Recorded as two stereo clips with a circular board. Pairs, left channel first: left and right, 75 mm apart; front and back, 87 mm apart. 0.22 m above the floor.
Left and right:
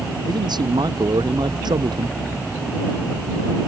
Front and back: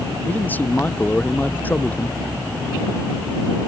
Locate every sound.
0.3 s a man speaking: 70° right